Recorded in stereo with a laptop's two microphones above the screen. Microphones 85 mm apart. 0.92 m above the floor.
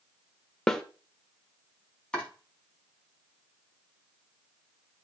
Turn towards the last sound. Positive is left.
turn(degrees=10)  # may be behind; listen again after turning